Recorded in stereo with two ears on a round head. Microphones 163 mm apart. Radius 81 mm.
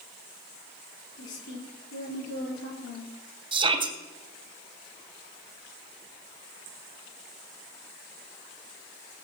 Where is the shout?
30° right (ahead or behind), 2.5 m.